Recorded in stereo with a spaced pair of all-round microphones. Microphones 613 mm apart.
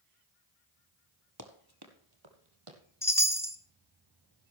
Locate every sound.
1.4 s running footsteps: 30° right (ahead or behind), 1.6 m; by 2.8 s 55° right (ahead or behind), 2.5 m
3.0 s a chime: 5° left (ahead or behind), 1.0 m